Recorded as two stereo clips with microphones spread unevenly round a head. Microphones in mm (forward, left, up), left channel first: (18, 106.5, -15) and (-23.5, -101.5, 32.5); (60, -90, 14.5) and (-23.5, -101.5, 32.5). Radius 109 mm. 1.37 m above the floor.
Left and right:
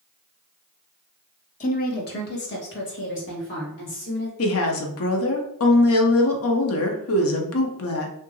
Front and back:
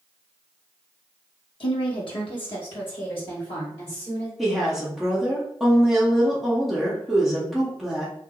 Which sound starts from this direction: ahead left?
A woman speaking, at 1.6 s.